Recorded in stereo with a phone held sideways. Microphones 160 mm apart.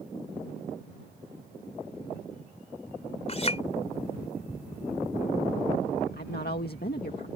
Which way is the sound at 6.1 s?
75° left (ahead or behind).